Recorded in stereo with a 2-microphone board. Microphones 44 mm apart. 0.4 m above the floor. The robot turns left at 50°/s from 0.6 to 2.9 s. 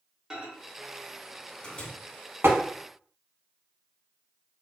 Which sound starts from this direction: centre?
A microwave, at 0.3 s.